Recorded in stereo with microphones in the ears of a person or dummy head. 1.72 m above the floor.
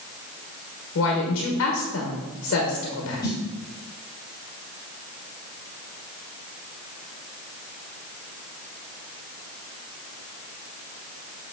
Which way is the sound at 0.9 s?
60° left (ahead or behind).